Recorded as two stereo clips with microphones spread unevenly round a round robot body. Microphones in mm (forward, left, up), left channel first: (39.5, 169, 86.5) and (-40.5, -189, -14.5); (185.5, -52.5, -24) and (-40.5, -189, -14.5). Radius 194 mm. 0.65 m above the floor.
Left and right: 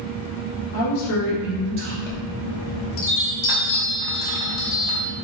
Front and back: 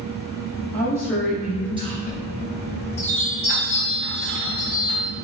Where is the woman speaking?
90° left, 0.9 m; by 2.0 s 80° right, 1.2 m.